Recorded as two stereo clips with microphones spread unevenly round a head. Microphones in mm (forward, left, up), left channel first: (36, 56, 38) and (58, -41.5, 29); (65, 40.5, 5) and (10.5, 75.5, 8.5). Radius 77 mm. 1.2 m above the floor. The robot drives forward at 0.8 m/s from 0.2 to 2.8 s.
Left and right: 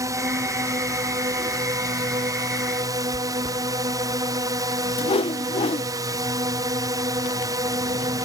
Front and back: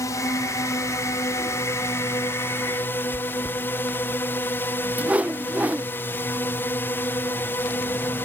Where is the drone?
35° right; by 8.2 s 70° right.